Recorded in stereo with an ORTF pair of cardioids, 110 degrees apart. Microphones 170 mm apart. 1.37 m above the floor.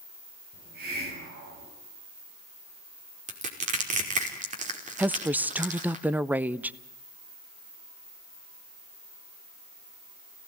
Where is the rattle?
No rattle in this recording.